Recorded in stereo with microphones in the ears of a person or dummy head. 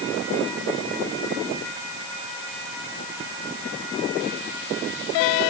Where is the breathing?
I don't hear breathing.